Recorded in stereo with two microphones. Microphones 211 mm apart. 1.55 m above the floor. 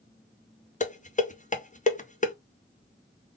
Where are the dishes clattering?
35° left (ahead or behind), 0.6 m.